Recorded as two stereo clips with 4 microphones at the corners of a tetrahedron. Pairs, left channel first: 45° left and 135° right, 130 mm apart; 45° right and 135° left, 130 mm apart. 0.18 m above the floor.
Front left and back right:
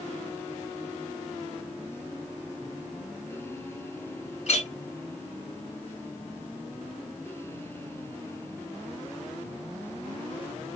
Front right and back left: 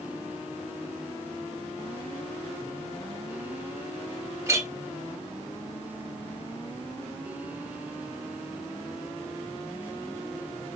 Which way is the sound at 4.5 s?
70° left.